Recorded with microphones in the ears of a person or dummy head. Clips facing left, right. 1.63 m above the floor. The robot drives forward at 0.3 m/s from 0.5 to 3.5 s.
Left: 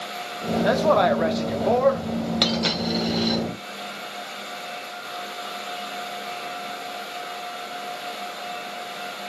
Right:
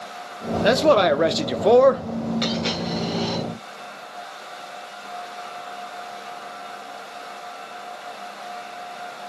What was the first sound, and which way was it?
A man speaking, 30° right (ahead or behind).